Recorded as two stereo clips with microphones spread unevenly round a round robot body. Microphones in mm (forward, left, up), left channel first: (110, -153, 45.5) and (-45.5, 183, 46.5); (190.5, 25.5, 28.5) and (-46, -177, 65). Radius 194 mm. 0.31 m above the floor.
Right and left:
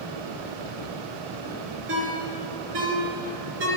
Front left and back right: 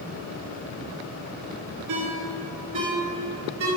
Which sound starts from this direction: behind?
A ringtone, at 1.9 s.